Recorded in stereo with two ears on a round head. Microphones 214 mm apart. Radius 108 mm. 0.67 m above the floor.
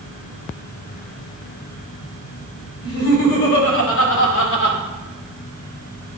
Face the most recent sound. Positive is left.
turn(degrees=40)  # may be behind; listen again after turning